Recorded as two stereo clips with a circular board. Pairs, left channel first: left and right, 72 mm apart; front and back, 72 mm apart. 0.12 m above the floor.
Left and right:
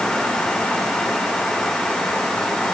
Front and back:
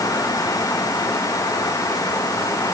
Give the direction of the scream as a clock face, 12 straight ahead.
I don't hear a scream.